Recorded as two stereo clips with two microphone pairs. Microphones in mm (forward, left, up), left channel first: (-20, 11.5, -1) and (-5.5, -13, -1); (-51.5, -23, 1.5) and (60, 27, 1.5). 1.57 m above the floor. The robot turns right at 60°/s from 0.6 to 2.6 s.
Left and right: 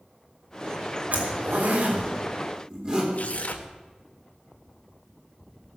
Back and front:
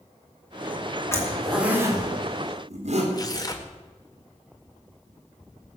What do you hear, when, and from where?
1.1 s a zipper: 90° right, 3.5 m; by 3.0 s straight ahead, 3.5 m
3.1 s tearing paper: 150° left, 1.5 m